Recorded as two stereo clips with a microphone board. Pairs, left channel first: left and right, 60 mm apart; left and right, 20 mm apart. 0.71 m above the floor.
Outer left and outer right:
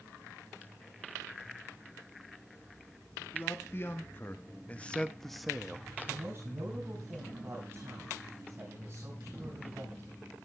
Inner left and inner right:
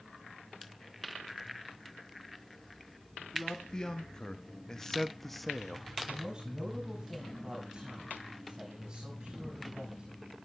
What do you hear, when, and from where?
3.3 s a man speaking: 40° left (ahead or behind), 1.5 m; by 5.9 s 10° right (ahead or behind), 1.0 m
6.1 s a man speaking: 45° right (ahead or behind), 3.5 m